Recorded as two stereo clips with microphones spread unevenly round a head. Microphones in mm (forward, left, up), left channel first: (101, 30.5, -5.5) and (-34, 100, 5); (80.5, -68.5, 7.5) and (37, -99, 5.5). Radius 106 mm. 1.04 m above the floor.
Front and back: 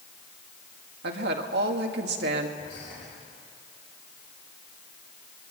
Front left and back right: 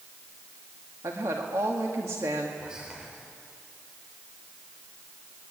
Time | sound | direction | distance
1.0 | a woman speaking | 165° left | 2 m
2.6 | whispering | 70° right | 4 m